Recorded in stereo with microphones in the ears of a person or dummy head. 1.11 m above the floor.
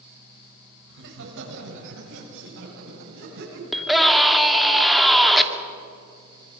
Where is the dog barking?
No dog barking in this recording.